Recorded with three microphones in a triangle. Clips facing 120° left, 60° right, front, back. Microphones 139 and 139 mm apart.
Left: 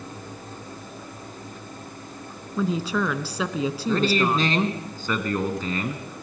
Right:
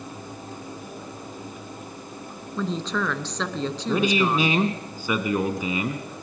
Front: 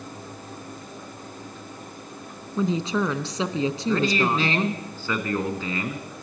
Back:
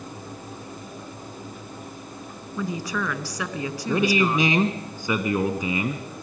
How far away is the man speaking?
About 1.6 m.